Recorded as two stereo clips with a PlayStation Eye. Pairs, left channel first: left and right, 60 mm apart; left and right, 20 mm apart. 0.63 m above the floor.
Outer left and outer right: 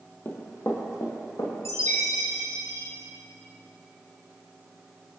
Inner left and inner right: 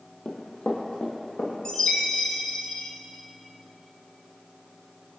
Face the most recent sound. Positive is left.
turn(degrees=50)  # may be behind; listen again after turning